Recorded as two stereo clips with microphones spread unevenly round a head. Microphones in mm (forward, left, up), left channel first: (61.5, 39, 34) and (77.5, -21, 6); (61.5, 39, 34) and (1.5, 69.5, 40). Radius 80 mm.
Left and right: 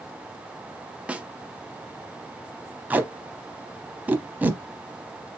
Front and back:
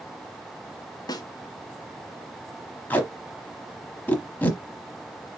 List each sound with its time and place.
1.1 s a snare drum: 5° right, 1.0 m
2.9 s tape being pulled: 15° left, 0.9 m